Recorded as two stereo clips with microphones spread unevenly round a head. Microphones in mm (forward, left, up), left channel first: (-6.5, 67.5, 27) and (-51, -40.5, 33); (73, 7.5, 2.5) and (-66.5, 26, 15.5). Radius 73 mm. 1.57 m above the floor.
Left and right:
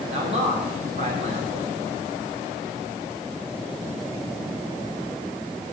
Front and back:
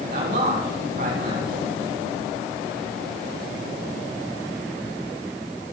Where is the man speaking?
150° right, 4.5 m.